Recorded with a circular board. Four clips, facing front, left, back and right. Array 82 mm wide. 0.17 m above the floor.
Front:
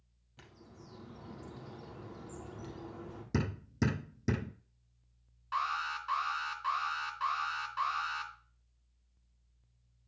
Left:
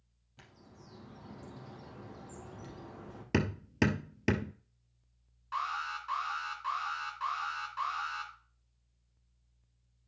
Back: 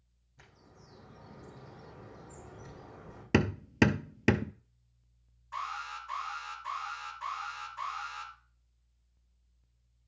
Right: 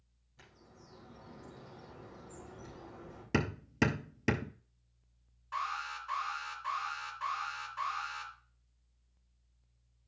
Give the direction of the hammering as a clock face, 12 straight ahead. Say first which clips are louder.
Left 1 dB, back 8 dB; 6 o'clock.